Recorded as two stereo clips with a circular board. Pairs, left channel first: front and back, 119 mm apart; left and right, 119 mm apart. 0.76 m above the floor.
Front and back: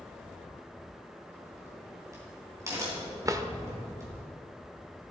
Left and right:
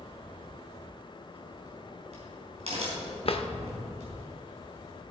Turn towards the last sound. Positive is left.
turn(degrees=120)